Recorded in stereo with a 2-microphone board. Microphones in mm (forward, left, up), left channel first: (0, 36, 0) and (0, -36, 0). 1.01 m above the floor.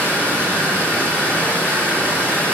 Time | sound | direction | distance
0.0 | running water | 25° left (ahead or behind) | 2.5 m